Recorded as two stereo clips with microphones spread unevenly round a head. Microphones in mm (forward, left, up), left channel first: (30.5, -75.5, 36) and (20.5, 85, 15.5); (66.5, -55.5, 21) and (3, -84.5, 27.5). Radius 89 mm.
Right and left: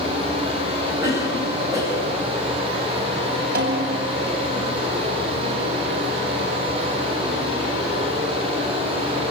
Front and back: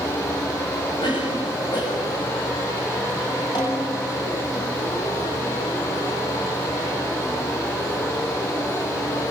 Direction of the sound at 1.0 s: 20° left.